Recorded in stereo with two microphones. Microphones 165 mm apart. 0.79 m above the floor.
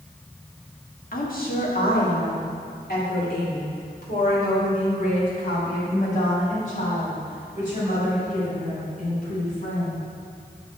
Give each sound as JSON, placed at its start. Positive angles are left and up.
{"t": 1.1, "sound": "a woman speaking", "side_deg": 60, "distance_m": 1.2}